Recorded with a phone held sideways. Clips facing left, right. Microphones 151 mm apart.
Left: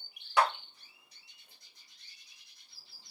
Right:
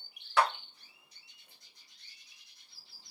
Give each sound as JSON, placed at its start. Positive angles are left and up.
{"t": 0.4, "sound": "a clap", "side_deg": 15, "distance_m": 1.0}